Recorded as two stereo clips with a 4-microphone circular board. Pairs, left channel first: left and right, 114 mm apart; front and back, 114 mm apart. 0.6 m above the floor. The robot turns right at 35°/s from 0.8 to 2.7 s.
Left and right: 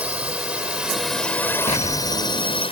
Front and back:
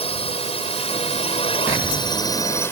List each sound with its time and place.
0.0 s a drone: 15° right; by 2.7 s 65° left
1.7 s an explosion: 110° left; by 2.6 s 145° left